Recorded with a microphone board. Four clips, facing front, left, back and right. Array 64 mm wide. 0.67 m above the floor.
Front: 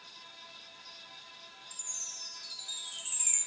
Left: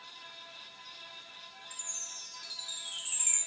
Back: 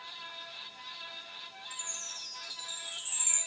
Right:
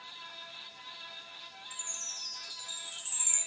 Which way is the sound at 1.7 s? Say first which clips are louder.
Right 2 dB, back 7 dB; 90° left.